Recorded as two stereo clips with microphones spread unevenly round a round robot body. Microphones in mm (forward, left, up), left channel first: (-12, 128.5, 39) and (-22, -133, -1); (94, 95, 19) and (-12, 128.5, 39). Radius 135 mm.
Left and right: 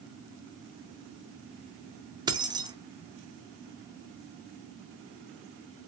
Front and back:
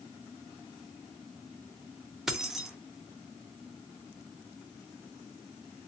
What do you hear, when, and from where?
2.3 s keys jangling: 95° right, 0.6 m